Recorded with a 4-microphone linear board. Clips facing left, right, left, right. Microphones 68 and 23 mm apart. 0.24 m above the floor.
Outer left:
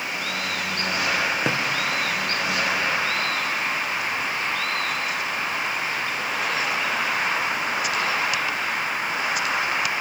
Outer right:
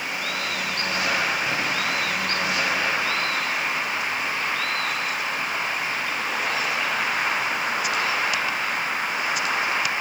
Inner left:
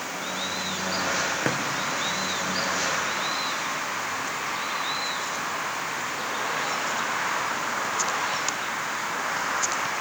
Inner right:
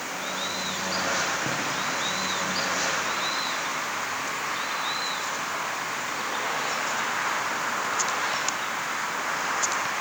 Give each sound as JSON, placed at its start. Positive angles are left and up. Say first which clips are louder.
{"t": 1.4, "sound": "a drawer", "louder": "outer left 2 dB, inner left 2 dB", "side_deg": 90, "distance_m": 3.5}